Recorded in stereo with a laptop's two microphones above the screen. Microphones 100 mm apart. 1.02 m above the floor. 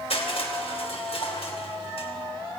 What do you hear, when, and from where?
0.1 s crushing: 80° left, 3.5 m